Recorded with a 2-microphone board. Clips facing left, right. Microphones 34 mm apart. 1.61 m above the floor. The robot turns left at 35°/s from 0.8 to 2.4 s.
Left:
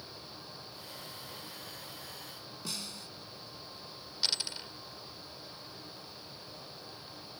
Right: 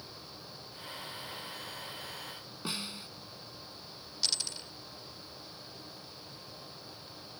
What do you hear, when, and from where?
2.6 s a snare drum: 30° right (ahead or behind)
4.2 s a dropped coin: 25° left (ahead or behind)